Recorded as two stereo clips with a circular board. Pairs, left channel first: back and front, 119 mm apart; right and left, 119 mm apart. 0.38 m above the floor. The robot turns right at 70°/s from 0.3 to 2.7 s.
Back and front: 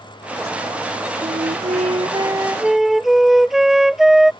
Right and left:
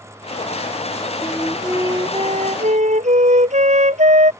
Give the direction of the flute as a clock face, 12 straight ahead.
1 o'clock.